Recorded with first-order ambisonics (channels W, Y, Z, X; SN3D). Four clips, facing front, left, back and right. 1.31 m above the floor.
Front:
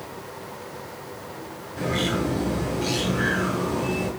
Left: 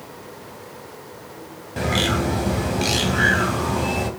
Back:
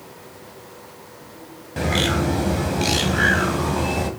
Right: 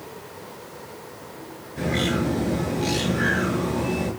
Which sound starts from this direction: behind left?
A bird, at 1.8 s.